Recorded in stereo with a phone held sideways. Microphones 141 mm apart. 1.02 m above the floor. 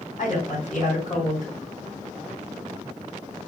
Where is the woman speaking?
70° left (ahead or behind), 3 m.